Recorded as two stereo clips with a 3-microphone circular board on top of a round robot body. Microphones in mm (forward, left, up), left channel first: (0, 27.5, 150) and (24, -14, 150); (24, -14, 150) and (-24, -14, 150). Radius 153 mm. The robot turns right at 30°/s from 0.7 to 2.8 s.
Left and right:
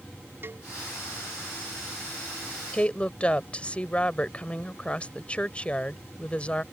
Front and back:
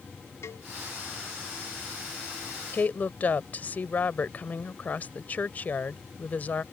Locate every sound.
0.4 s a cowbell: 20° right
2.7 s a woman speaking: 50° left; by 6.6 s 55° left